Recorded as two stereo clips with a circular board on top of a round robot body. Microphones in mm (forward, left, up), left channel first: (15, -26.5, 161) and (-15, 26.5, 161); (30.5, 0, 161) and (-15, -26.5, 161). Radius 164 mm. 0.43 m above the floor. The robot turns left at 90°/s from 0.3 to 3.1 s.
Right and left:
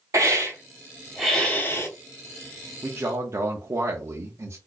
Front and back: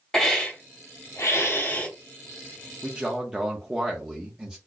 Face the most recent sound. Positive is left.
turn(degrees=140)